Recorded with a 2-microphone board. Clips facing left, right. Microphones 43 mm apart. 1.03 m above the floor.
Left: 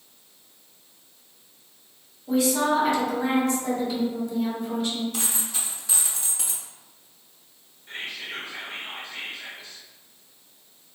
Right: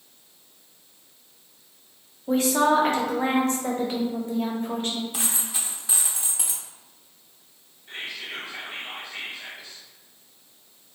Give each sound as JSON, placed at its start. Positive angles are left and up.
{"t": 2.3, "sound": "a woman speaking", "side_deg": -45, "distance_m": 0.7}
{"t": 5.1, "sound": "a dropped coin", "side_deg": -15, "distance_m": 0.6}
{"t": 7.9, "sound": "whispering", "side_deg": 55, "distance_m": 1.3}